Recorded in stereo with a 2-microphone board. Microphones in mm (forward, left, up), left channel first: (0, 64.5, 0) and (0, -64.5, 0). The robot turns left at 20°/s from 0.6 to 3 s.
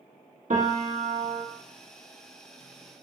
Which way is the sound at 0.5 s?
80° right.